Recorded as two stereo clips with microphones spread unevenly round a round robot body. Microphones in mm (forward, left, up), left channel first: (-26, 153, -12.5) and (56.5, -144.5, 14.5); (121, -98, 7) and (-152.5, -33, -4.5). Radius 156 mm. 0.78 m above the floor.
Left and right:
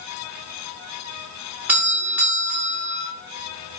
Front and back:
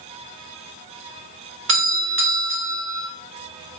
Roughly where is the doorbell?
Behind.